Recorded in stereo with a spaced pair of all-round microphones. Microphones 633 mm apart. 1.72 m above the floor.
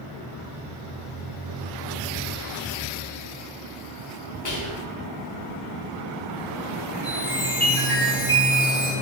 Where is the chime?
5° left (ahead or behind), 1.5 m.